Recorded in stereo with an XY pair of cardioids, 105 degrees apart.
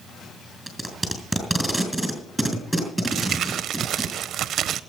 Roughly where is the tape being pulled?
Ahead.